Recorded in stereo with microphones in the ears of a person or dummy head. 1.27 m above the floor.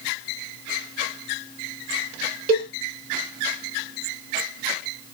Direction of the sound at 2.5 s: 50° right (ahead or behind).